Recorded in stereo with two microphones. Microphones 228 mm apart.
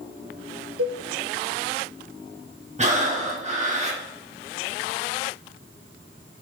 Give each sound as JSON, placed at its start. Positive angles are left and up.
{"t": 0.8, "sound": "a cowbell", "side_deg": -75, "distance_m": 1.0}
{"t": 2.8, "sound": "breathing", "side_deg": -30, "distance_m": 1.4}